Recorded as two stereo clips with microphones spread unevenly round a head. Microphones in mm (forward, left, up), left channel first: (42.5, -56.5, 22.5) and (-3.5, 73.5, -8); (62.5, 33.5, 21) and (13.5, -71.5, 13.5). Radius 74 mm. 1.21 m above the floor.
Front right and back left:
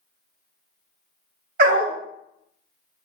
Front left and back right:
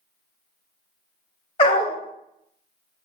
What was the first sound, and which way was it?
A dog barking, 95° left.